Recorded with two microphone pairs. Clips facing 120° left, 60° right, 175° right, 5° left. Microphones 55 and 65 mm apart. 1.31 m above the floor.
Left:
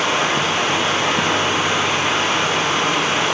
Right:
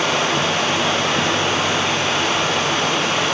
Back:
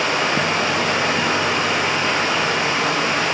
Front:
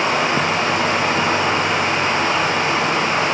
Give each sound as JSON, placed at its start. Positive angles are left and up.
{"t": 0.0, "sound": "running water", "azimuth_deg": 45, "distance_m": 2.5}